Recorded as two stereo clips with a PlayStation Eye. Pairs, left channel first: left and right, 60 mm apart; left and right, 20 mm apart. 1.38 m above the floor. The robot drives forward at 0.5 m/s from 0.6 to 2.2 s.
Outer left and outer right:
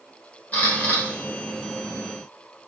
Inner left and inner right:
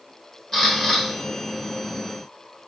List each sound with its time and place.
0.5 s a camera shutter: 25° left (ahead or behind), 1.2 m; by 1.0 s 30° left (ahead or behind), 1.0 m